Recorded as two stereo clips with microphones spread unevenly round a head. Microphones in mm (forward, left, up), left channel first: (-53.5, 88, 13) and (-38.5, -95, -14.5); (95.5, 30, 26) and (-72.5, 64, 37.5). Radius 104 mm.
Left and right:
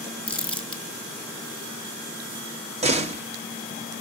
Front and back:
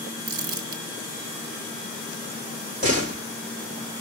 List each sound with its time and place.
0.3 s crumpling: 170° left, 2.5 m
2.8 s a door slam: 140° right, 1.8 m